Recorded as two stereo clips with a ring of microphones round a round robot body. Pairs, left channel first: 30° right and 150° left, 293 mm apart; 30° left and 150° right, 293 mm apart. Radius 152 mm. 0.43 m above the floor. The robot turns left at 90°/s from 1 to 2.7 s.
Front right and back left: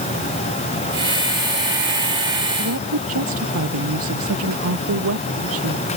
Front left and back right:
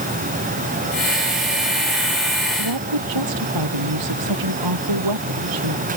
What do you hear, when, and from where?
2.6 s a woman speaking: 155° right; by 5.9 s 165° right